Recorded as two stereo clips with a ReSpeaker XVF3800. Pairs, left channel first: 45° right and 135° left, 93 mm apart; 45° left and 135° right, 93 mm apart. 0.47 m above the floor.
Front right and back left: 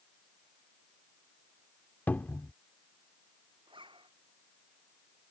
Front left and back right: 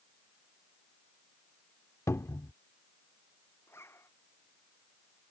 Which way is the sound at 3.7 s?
110° left.